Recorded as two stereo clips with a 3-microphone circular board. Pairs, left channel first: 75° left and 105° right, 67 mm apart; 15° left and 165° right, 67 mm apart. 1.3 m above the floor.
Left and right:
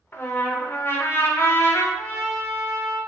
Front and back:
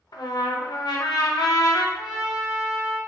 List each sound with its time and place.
0.1 s a trumpet: 20° left, 0.6 m
2.0 s a trumpet: 130° left, 0.8 m